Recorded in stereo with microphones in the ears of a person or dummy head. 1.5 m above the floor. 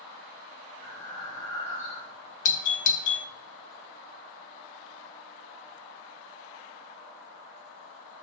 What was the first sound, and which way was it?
Breathing, 30° left (ahead or behind).